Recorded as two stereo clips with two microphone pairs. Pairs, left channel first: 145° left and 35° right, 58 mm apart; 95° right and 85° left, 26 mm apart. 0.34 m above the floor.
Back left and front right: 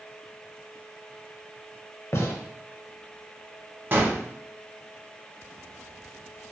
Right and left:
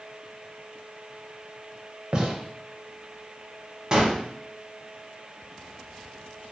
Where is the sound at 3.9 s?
20° left, 0.7 m.